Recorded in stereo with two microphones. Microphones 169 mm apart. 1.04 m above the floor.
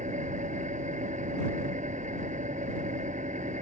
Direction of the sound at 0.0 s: 45° right (ahead or behind).